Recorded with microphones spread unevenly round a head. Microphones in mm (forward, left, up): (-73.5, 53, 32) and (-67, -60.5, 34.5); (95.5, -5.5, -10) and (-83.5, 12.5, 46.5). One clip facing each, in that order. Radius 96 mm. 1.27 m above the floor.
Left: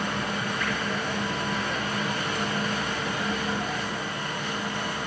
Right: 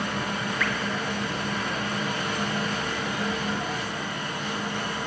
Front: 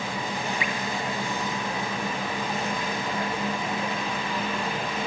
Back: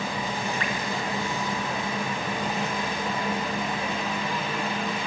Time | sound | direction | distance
0.6 | dripping | 85° right | 1.8 m